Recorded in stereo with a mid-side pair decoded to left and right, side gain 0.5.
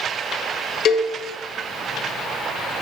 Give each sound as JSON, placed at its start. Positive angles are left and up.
{"t": 0.8, "sound": "a cowbell", "azimuth_deg": 60, "distance_m": 1.1}